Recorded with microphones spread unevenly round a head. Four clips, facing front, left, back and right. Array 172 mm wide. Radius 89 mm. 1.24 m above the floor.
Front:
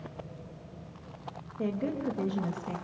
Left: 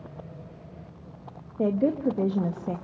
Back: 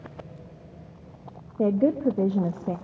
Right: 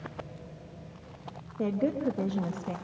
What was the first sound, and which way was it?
A woman speaking, 160° left.